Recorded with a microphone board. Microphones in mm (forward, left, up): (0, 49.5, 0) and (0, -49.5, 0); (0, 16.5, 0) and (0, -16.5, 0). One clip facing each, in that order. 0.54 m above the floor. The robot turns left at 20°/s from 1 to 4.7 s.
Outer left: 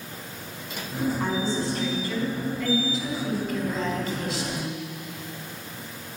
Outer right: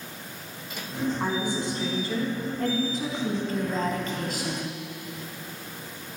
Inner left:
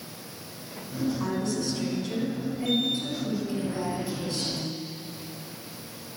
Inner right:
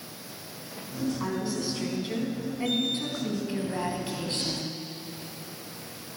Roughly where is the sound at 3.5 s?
Right.